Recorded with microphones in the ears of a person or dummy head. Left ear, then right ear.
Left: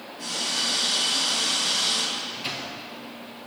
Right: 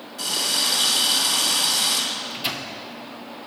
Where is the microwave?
15° right (ahead or behind), 0.7 m.